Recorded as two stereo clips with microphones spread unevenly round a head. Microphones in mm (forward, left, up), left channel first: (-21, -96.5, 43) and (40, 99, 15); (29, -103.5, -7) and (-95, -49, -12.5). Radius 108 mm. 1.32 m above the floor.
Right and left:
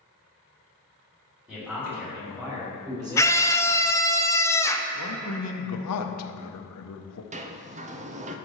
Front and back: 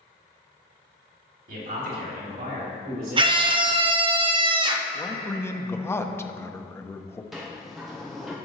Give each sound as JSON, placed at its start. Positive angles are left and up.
{"t": 1.5, "sound": "a man speaking", "azimuth_deg": 160, "distance_m": 2.5}
{"t": 3.2, "sound": "a scream", "azimuth_deg": 175, "distance_m": 0.6}
{"t": 4.9, "sound": "a man speaking", "azimuth_deg": -100, "distance_m": 0.8}
{"t": 7.3, "sound": "a sliding door", "azimuth_deg": 70, "distance_m": 0.6}